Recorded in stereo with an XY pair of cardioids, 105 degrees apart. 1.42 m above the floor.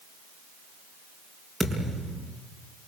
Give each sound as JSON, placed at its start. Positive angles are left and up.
{"t": 1.6, "sound": "a thud", "azimuth_deg": -10, "distance_m": 5.5}